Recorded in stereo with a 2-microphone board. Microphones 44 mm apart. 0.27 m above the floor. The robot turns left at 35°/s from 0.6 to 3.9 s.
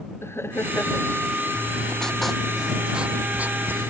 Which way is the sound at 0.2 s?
70° left (ahead or behind).